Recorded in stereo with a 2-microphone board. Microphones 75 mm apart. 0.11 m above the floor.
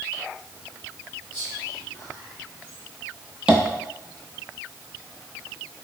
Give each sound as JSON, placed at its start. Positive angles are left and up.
{"t": 1.3, "sound": "whispering", "side_deg": 20, "distance_m": 1.4}
{"t": 3.5, "sound": "tapping", "side_deg": -15, "distance_m": 0.8}